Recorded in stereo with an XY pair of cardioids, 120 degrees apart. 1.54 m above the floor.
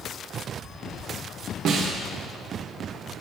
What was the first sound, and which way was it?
A snare drum, 65° right.